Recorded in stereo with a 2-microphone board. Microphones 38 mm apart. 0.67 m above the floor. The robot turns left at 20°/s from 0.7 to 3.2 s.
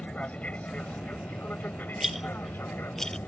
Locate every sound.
0.0 s an aircraft: 35° left (ahead or behind); by 3.3 s 70° left (ahead or behind)
2.0 s a rattle: 10° right (ahead or behind); by 3.2 s 15° left (ahead or behind)